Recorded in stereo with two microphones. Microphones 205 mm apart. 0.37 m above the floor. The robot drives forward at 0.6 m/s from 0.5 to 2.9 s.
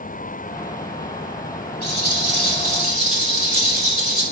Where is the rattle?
50° left (ahead or behind), 5 m; by 4.2 s 45° left (ahead or behind), 5 m.